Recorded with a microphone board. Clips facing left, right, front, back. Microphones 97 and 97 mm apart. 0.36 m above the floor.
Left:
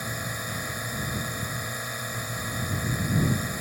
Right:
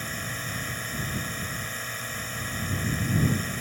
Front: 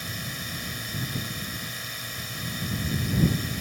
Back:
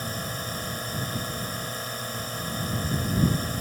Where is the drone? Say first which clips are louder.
Left 1 dB, back 4 dB; 160° left.